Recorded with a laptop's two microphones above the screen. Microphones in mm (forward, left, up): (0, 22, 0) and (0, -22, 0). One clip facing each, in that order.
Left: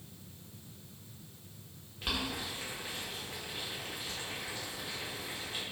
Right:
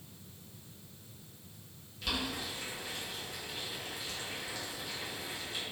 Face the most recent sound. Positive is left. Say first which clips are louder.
# even
turn(degrees=30)  # may be behind; listen again after turning